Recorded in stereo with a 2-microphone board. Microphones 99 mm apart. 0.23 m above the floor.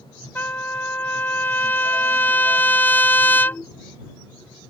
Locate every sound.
0.3 s a trumpet: 20° left (ahead or behind)